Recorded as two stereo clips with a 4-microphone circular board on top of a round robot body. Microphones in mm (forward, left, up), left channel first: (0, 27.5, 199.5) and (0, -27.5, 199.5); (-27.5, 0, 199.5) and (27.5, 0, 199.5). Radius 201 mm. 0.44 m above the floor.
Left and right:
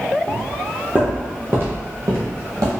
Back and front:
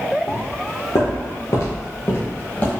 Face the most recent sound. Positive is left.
turn(degrees=-110)